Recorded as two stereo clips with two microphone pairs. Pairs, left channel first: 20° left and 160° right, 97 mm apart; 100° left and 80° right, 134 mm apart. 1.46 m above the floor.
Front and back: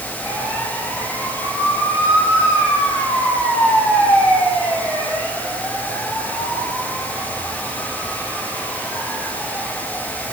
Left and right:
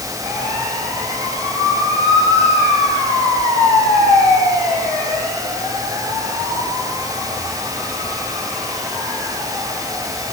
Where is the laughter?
No laughter in this recording.